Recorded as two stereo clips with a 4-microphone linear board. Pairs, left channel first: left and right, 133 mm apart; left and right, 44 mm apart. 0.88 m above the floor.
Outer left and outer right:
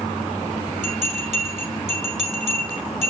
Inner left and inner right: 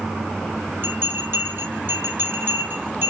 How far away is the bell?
About 2.5 m.